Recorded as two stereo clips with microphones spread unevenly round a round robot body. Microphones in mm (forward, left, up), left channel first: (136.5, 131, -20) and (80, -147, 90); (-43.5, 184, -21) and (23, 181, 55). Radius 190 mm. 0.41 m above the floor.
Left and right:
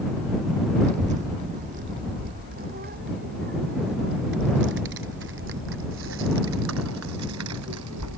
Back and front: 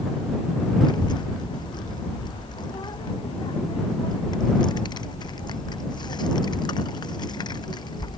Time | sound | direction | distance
0.8 | a child speaking | 175° right | ?